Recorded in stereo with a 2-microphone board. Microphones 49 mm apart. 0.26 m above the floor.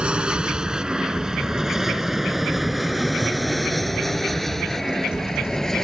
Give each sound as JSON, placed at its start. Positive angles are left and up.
{"t": 0.0, "sound": "an aircraft", "side_deg": -15}